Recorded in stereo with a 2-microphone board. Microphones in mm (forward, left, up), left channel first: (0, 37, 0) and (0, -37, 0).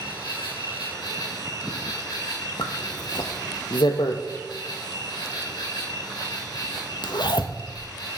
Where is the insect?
60° left (ahead or behind), 2 m.